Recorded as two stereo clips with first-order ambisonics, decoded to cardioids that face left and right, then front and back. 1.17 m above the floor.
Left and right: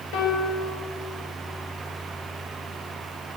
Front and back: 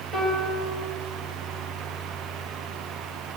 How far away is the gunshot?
No gunshot in this recording.